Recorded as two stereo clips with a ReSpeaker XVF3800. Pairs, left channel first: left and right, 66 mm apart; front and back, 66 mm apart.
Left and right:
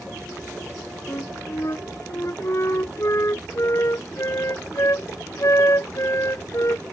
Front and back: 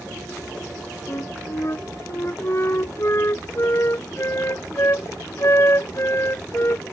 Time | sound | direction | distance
1.1 | a flute | 50° left | ?